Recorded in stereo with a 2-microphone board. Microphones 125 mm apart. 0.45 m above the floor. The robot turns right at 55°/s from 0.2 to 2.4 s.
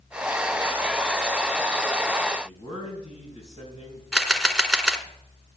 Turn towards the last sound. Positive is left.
turn(degrees=5)  # may be behind; listen again after turning